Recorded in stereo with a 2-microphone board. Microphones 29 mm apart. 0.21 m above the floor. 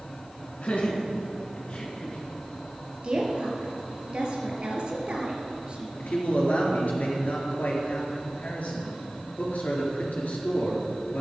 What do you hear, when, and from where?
0.6 s laughter: 50° left (ahead or behind), 2.5 m; by 2.2 s 35° left (ahead or behind), 3.5 m
3.0 s a woman speaking: 35° right (ahead or behind), 3.5 m
6.0 s a man speaking: 60° left (ahead or behind), 4 m